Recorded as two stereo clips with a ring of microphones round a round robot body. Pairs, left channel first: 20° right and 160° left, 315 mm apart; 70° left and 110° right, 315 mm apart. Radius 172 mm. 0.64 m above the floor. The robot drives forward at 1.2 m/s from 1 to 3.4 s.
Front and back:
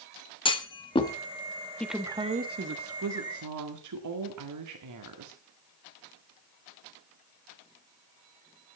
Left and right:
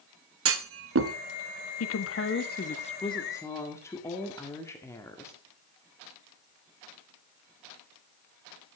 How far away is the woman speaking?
About 1.4 m.